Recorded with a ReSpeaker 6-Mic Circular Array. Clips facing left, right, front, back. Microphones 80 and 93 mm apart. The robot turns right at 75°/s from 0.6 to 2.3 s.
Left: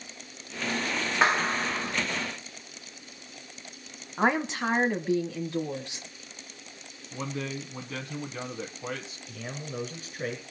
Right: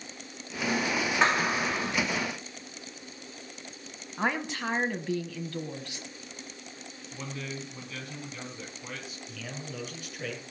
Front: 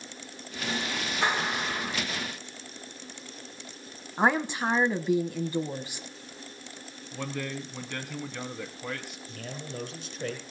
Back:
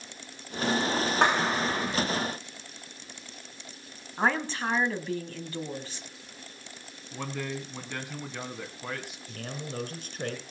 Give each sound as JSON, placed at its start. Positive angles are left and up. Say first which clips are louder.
{"t": 1.2, "sound": "a clap", "louder": "left 2 dB, back 3 dB", "azimuth_deg": 165, "distance_m": 10.0}
{"t": 4.2, "sound": "a woman speaking", "louder": "left 5 dB, front 3 dB", "azimuth_deg": 55, "distance_m": 1.1}
{"t": 7.1, "sound": "a man speaking", "louder": "left 5 dB, even", "azimuth_deg": 110, "distance_m": 1.7}
{"t": 9.3, "sound": "a man speaking", "louder": "left 4 dB, back 2 dB", "azimuth_deg": 145, "distance_m": 5.0}